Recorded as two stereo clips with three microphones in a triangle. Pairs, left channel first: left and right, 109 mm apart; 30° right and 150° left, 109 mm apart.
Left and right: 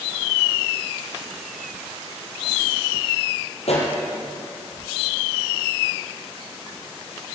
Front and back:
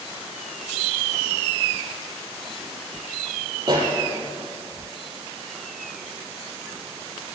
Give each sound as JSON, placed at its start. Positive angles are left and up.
{"t": 3.6, "sound": "a pop", "azimuth_deg": 100, "distance_m": 6.0}